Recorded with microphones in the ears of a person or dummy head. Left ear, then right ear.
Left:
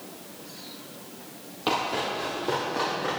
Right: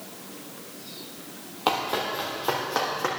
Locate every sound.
1.7 s running footsteps: 25° right (ahead or behind), 1.7 m; by 3.1 s 50° right (ahead or behind), 2.5 m